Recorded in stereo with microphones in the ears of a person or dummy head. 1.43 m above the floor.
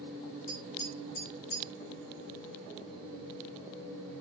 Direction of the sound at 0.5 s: 60° left (ahead or behind).